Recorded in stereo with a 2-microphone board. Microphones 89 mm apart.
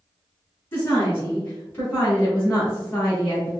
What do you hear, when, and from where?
0.7 s a woman speaking: 20° left (ahead or behind), 1.7 m; by 3.5 s 15° left (ahead or behind), 1.4 m